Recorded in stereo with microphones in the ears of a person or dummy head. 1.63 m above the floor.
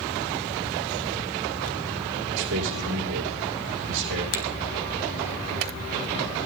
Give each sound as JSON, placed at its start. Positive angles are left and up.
{"t": 2.3, "sound": "a man speaking", "side_deg": -85, "distance_m": 2.5}
{"t": 4.3, "sound": "a finger snap", "side_deg": 75, "distance_m": 2.0}